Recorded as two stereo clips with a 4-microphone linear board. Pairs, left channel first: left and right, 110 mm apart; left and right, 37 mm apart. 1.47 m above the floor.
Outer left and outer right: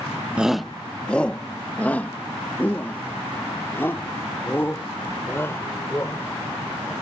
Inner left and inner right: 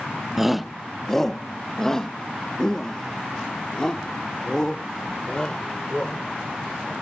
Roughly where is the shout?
Centre.